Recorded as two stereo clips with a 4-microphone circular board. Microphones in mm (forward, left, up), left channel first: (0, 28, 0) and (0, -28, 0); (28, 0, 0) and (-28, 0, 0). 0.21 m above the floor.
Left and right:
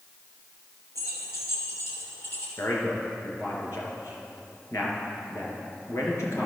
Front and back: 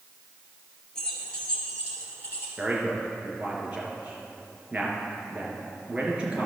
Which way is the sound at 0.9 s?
80° left.